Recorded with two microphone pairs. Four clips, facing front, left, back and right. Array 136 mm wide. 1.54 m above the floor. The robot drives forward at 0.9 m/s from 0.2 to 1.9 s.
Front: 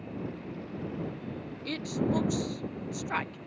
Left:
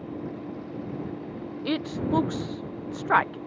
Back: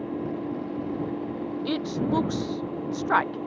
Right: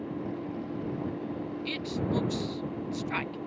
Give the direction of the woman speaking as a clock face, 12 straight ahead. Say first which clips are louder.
Left 7 dB, back 3 dB; 8 o'clock.